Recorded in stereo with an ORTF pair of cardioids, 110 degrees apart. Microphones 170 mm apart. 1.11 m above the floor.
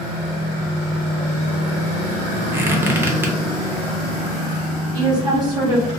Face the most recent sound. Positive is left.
turn(degrees=-25)